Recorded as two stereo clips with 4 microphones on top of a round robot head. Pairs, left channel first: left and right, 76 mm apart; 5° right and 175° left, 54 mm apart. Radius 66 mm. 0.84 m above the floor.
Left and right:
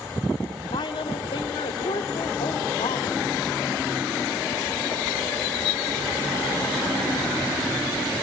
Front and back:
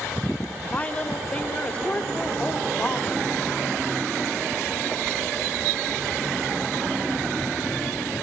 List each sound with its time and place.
0.7 s a woman speaking: 65° left, 2.5 m